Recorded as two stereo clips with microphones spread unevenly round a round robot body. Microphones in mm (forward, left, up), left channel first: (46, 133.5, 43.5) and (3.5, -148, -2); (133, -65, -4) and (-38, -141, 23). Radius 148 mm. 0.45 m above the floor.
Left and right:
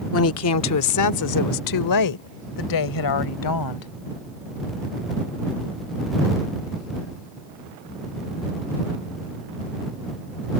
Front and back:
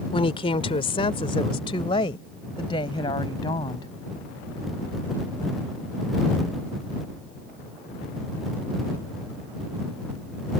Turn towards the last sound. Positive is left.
turn(degrees=100)